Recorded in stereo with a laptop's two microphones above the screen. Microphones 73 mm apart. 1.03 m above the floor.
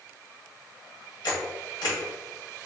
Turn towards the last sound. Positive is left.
turn(degrees=85)